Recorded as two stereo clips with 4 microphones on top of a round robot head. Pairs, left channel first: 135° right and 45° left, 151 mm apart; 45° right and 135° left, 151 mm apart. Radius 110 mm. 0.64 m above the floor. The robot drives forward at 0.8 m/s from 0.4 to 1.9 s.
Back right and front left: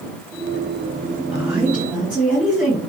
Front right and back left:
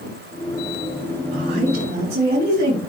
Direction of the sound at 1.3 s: 120° left.